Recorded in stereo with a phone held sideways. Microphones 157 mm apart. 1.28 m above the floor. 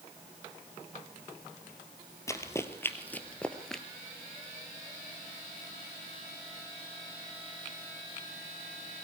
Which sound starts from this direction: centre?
Running footsteps, at 2.3 s.